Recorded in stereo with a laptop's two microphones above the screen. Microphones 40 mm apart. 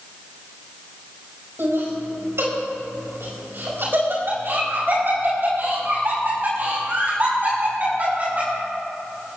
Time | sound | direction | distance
1.6 | laughter | 75° right (ahead or behind) | 5 m